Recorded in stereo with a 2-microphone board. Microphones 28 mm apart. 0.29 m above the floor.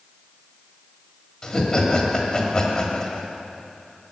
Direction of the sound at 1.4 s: 25° left (ahead or behind).